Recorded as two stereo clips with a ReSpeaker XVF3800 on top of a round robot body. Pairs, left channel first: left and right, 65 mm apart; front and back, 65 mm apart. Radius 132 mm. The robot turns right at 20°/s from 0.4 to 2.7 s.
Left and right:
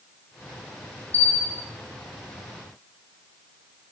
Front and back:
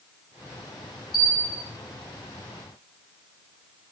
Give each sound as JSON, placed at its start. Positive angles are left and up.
{"t": 1.1, "sound": "a bell", "azimuth_deg": 30, "distance_m": 0.7}